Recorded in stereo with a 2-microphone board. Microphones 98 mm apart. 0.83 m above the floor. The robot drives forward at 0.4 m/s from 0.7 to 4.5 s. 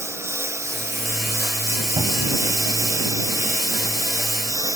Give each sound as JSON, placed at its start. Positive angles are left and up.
{"t": 0.0, "sound": "a lawn mower", "side_deg": -25}
{"t": 2.0, "sound": "a cupboard door", "side_deg": -60}